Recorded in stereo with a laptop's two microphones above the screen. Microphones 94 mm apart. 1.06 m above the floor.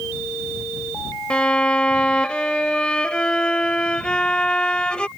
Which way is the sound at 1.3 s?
10° left (ahead or behind).